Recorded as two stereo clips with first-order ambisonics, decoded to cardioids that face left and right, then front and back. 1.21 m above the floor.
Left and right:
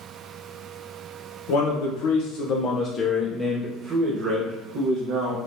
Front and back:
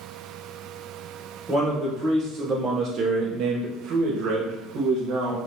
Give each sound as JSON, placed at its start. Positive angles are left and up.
{"t": 1.5, "sound": "a man speaking", "azimuth_deg": 95, "distance_m": 1.0}